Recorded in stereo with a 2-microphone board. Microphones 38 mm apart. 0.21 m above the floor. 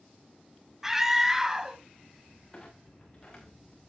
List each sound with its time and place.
0.8 s a scream: 10° right (ahead or behind), 1.3 m
2.5 s a clunk: 25° left (ahead or behind), 4.5 m